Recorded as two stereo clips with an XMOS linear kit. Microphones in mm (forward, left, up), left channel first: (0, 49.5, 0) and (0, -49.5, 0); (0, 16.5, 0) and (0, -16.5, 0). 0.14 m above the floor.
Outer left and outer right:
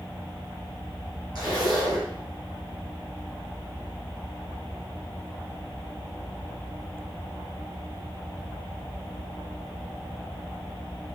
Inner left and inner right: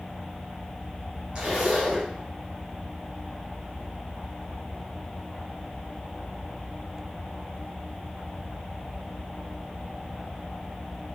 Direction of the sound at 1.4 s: 45° right (ahead or behind).